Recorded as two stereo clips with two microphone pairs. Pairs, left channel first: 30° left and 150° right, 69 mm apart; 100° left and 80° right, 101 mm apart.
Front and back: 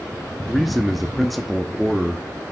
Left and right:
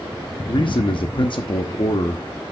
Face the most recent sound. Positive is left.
turn(degrees=120)